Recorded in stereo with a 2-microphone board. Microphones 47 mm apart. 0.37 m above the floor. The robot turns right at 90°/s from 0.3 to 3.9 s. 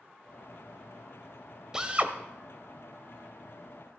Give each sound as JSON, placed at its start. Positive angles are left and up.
{"t": 1.7, "sound": "a drill", "azimuth_deg": -165, "distance_m": 0.9}